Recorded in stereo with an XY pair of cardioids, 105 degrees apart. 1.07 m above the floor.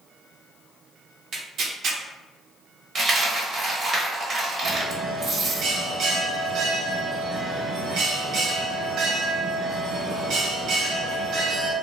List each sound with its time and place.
1.3 s tearing paper: 55° right, 0.8 m
3.0 s a dropped coin: 40° right, 1.0 m
4.6 s a bell: 65° right, 1.0 m